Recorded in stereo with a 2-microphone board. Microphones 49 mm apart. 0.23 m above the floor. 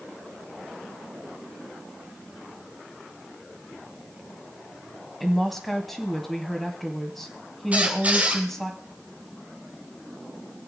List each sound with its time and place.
5.2 s a woman speaking: 5° left (ahead or behind), 1.2 m
7.7 s a squeak: 30° right (ahead or behind), 2.5 m